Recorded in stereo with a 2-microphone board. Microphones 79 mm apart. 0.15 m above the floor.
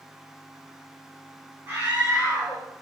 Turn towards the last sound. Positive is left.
turn(degrees=-30)  # may be behind; listen again after turning